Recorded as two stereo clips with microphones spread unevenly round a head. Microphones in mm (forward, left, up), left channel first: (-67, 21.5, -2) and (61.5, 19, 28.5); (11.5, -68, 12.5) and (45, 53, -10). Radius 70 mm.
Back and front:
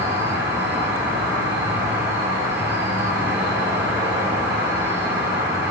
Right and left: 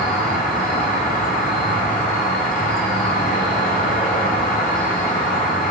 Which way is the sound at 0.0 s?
80° right.